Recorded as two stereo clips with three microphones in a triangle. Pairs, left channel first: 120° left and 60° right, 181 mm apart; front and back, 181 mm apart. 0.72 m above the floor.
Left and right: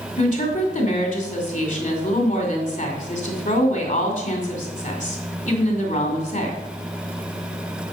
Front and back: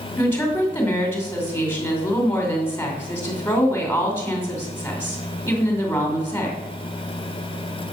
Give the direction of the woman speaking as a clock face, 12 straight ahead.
9 o'clock.